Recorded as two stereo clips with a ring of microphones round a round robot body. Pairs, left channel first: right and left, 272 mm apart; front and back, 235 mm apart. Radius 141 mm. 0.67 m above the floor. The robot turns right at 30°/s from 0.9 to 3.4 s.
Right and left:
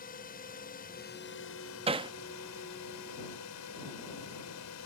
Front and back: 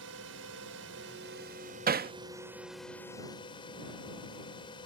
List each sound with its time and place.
0.0 s a drone: 145° right; by 4.9 s 70° right
1.9 s hammering: 150° left; by 2.1 s 160° left